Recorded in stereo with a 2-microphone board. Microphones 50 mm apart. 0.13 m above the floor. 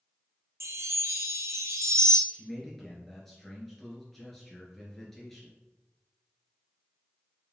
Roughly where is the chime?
Right.